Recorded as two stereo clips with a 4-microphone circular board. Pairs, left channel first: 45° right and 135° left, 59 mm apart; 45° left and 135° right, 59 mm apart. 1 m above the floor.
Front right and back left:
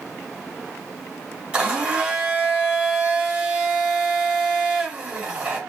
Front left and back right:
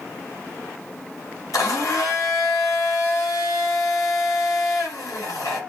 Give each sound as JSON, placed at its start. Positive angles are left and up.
{"t": 1.5, "sound": "a blender", "azimuth_deg": 65, "distance_m": 2.5}